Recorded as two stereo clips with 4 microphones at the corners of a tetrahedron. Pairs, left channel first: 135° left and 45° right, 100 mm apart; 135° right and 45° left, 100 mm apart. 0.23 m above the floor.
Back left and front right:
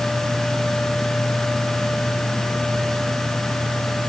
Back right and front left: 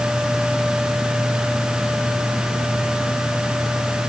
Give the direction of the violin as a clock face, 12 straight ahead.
I don't hear a violin.